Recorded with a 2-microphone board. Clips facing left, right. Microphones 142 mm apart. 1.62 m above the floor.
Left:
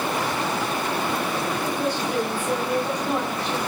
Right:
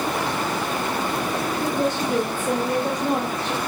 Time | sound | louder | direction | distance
1.6 | a woman speaking | right 2 dB | 50° right (ahead or behind) | 3 m